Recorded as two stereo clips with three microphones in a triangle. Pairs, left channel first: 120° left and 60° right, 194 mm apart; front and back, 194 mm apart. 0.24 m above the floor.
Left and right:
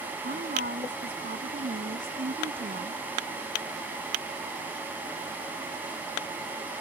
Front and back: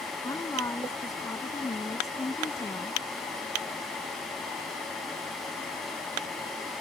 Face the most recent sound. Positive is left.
turn(degrees=-70)